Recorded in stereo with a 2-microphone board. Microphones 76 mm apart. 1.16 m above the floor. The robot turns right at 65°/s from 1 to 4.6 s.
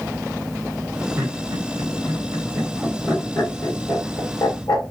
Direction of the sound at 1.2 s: 45° right (ahead or behind).